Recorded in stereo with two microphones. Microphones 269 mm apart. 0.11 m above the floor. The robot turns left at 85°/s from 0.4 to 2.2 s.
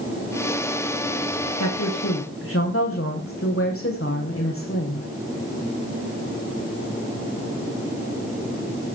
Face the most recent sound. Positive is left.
turn(degrees=55)